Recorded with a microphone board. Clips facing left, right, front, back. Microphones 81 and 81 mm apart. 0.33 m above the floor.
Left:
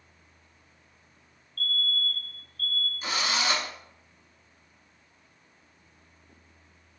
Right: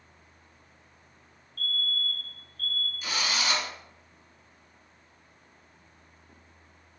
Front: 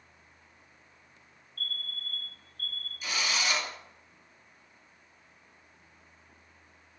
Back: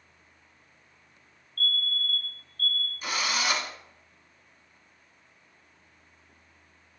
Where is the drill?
145° left, 1.4 m.